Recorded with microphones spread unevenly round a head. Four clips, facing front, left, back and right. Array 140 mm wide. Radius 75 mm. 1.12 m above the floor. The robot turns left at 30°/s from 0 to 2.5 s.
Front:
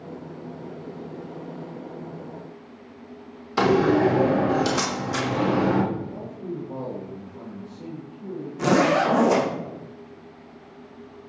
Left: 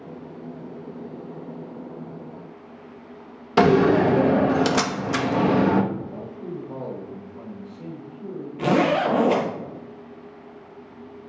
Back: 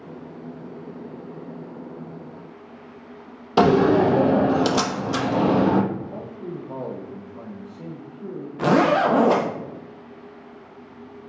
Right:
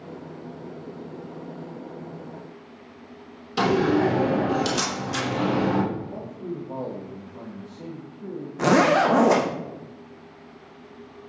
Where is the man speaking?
145° right, 1.7 m.